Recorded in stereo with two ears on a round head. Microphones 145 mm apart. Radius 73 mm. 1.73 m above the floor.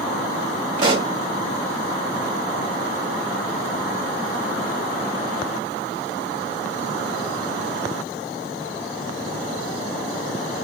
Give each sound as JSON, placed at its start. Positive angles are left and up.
{"t": 0.8, "sound": "a pop", "side_deg": -30, "distance_m": 1.2}